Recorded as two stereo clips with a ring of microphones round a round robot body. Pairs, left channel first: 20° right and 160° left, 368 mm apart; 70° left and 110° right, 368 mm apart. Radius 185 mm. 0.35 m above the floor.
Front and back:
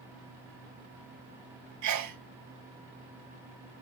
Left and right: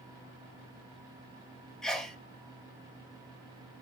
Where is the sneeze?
155° left, 1.7 m.